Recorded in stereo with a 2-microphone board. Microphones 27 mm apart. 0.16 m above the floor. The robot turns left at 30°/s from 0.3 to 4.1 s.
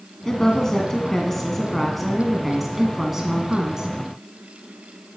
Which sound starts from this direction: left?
A woman speaking, at 0.2 s.